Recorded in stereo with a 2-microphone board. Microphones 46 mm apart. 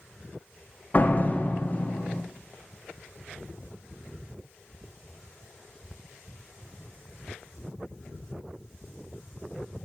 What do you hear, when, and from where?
0.9 s a door slam: 35° left (ahead or behind), 0.7 m